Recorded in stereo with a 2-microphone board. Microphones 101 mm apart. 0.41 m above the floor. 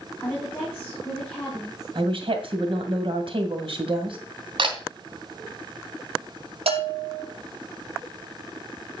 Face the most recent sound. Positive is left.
turn(degrees=-80)